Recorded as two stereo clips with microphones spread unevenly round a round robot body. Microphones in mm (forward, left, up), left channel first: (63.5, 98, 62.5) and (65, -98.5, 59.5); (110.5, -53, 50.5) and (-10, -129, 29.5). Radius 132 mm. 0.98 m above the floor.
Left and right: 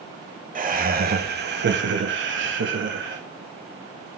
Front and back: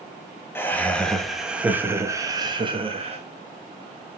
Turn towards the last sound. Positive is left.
turn(degrees=-115)